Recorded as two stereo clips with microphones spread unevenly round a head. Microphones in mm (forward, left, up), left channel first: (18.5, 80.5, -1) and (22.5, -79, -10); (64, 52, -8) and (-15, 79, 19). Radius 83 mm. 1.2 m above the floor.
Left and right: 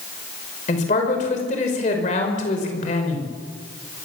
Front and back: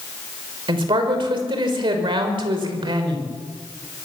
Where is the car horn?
No car horn in this recording.